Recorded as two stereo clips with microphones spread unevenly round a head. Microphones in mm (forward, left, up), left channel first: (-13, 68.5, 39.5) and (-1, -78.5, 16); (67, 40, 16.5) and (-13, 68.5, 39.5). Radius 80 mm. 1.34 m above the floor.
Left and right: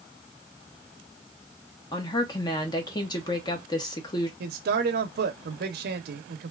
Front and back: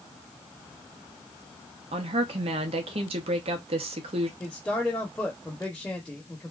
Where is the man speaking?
100° right, 0.6 m.